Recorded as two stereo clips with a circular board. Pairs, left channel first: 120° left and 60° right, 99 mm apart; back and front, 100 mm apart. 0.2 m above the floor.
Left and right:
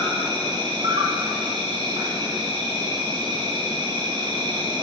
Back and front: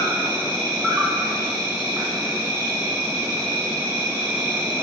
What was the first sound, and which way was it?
An insect, 55° right.